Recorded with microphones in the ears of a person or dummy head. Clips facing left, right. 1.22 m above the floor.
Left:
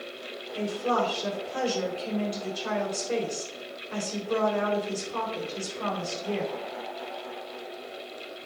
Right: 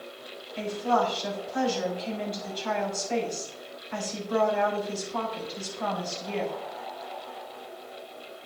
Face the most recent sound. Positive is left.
turn(degrees=60)  # may be behind; listen again after turning